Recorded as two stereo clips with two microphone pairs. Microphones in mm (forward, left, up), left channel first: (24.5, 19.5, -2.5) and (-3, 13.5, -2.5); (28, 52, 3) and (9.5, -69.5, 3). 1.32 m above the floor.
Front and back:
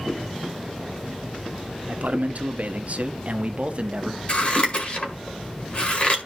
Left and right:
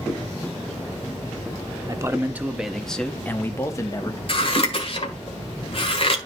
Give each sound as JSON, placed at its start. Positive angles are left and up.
{"t": 1.9, "sound": "a man speaking", "azimuth_deg": -155, "distance_m": 1.0}
{"t": 4.3, "sound": "scissors", "azimuth_deg": 45, "distance_m": 1.9}